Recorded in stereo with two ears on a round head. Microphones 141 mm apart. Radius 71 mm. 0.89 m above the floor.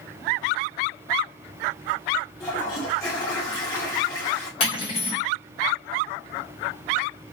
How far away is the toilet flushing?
About 1.5 m.